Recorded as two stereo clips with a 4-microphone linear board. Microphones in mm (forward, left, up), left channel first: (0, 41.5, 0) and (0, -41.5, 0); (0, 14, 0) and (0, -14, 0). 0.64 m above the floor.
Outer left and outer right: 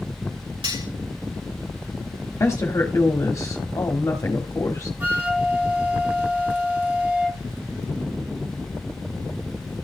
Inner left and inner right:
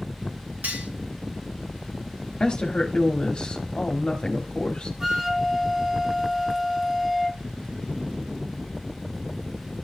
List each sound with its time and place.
0.6 s cutlery clinking: 85° right, 5.5 m
2.4 s a woman speaking: 40° left (ahead or behind), 1.4 m
5.0 s a flute: 20° right (ahead or behind), 1.1 m